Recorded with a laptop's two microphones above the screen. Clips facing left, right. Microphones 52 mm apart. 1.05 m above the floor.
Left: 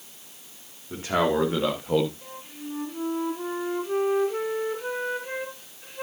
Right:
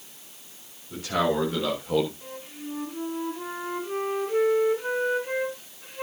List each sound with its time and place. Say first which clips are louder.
0.9 s a man speaking: left 1 dB; 30° left (ahead or behind), 2.5 m; by 2.1 s 5° left (ahead or behind), 0.9 m
2.2 s a flute: right 1 dB; centre (ahead or behind), 4.5 m